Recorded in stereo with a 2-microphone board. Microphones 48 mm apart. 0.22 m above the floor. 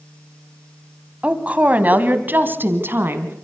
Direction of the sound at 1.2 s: 25° right (ahead or behind).